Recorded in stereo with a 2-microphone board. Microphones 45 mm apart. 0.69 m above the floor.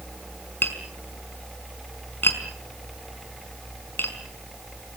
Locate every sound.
0.6 s tapping: 55° left (ahead or behind), 4.5 m